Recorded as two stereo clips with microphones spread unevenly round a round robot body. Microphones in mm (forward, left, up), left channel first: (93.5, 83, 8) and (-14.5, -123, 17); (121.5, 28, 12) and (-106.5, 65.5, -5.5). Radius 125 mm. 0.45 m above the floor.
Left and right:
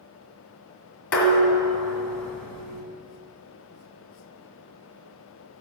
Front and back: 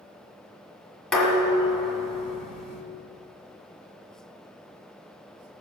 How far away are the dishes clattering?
About 2 m.